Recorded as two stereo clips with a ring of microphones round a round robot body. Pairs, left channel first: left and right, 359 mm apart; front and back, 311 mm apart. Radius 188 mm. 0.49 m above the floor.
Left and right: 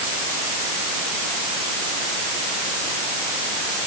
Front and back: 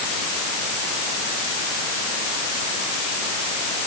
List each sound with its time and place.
Only background noise.